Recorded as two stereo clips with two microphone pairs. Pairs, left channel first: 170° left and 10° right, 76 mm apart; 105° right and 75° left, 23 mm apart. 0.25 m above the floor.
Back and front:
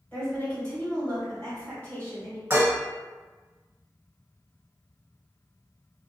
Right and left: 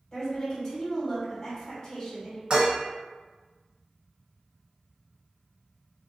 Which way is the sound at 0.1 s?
140° right.